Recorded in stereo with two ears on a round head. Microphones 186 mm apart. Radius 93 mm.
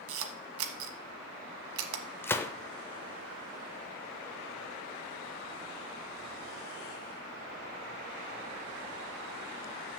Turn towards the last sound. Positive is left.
turn(degrees=10)  # may be behind; listen again after turning